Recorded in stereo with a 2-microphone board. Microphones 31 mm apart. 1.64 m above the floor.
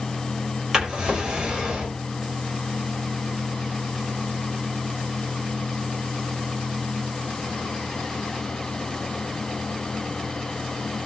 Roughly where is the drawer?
Centre.